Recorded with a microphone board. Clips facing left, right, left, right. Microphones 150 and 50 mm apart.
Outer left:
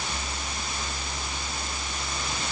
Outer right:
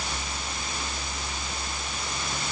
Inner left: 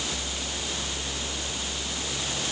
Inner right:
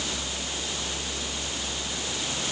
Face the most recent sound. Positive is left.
No sound to turn to.